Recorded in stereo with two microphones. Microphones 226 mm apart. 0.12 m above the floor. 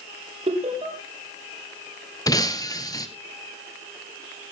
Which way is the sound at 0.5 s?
30° right (ahead or behind).